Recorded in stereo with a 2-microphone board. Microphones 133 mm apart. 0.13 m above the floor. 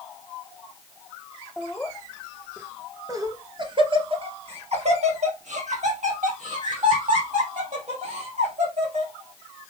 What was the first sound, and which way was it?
Laughter, centre (ahead or behind).